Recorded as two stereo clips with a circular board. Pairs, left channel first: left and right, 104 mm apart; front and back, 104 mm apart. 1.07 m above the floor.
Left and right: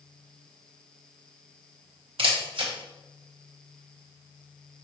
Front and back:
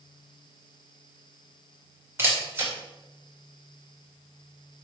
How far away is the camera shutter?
About 2 m.